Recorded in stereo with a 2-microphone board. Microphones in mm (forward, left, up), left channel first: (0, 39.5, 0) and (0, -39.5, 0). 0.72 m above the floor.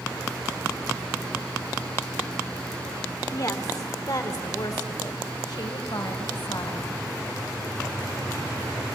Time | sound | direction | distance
3.3 | a woman speaking | 45° left (ahead or behind) | 2 m